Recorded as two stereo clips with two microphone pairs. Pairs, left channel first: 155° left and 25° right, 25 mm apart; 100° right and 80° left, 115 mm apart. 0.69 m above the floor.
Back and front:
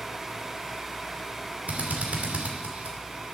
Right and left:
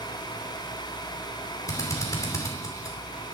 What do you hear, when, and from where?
1.7 s a drill: 40° right, 2.5 m